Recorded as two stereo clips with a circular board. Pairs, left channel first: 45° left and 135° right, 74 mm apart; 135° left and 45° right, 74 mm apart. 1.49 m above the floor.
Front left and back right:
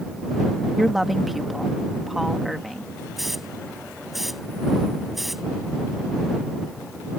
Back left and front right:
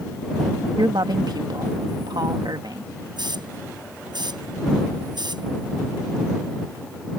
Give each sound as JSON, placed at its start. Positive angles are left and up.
{"t": 0.8, "sound": "a woman speaking", "azimuth_deg": -45}
{"t": 3.2, "sound": "a hiss", "azimuth_deg": -45}